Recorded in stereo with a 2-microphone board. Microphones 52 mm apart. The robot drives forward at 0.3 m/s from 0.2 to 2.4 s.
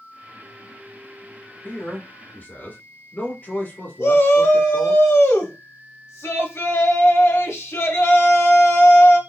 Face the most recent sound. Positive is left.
turn(degrees=55)  # may be behind; listen again after turning